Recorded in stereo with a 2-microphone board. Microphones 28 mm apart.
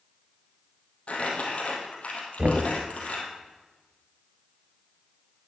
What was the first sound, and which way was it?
Crumpling, 55° left (ahead or behind).